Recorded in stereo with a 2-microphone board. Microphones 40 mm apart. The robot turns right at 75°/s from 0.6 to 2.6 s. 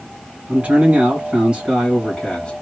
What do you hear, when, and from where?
0.5 s a man speaking: 110° right, 1.9 m; by 2.5 s 30° left, 1.9 m